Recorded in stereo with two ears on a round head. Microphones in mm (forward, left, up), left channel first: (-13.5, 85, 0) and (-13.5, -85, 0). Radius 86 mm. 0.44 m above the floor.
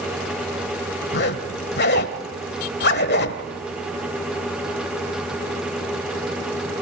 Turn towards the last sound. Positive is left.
turn(degrees=60)  # may be behind; listen again after turning